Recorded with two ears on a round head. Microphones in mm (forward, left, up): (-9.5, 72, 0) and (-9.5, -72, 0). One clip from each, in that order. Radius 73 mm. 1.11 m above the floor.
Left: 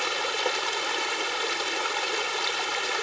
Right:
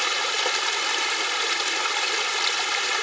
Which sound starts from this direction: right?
Running water, at 0.0 s.